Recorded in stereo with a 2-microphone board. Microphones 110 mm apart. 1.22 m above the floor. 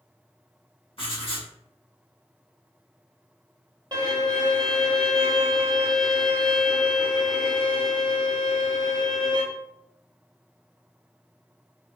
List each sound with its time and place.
1.0 s writing: 60° left (ahead or behind), 1.2 m
3.9 s a violin: 40° right (ahead or behind), 0.7 m